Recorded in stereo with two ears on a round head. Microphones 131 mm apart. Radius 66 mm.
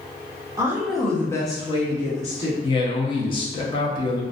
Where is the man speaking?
35° left (ahead or behind), 0.6 m.